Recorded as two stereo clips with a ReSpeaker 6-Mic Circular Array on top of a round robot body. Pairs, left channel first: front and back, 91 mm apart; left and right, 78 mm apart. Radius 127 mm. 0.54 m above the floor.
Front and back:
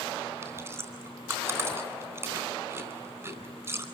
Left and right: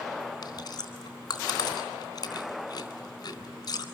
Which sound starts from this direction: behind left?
Chewing, at 0.4 s.